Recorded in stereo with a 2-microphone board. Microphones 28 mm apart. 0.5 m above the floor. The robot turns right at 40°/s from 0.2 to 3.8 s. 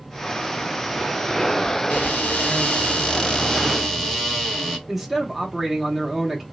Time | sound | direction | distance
1.9 | a cupboard door | 95° left | 0.9 m
4.9 | a man speaking | 5° right (ahead or behind) | 0.9 m